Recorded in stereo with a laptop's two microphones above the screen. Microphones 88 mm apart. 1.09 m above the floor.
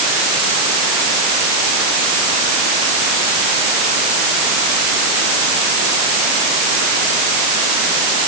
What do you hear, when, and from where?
Only background noise.